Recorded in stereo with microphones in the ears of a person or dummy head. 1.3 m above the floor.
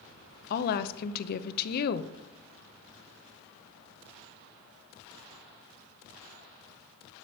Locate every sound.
0.5 s a woman speaking: 50° left (ahead or behind), 0.7 m